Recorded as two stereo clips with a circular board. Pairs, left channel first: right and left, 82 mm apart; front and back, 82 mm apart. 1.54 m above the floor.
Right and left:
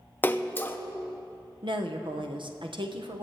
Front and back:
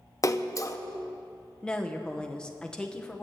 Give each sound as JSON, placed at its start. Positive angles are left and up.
{"t": 0.2, "sound": "a splash", "azimuth_deg": -35, "distance_m": 0.5}
{"t": 1.6, "sound": "a woman speaking", "azimuth_deg": 80, "distance_m": 1.0}